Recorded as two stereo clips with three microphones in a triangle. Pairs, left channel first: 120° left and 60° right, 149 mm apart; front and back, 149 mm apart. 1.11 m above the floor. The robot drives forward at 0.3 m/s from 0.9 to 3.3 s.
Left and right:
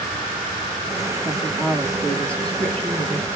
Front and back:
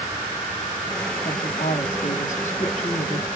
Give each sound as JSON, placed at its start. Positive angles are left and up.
{"t": 1.2, "sound": "a woman speaking", "azimuth_deg": 30, "distance_m": 1.4}